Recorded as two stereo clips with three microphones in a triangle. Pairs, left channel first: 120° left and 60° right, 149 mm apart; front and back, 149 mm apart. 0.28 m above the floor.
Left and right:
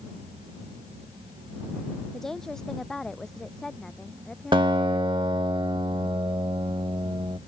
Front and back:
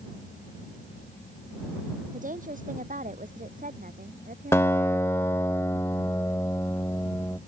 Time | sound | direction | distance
2.1 | a woman speaking | 155° right | ?
4.5 | a guitar | 55° right | ?